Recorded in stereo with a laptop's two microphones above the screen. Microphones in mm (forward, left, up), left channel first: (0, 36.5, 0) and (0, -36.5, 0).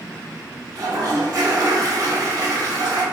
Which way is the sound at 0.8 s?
55° right (ahead or behind).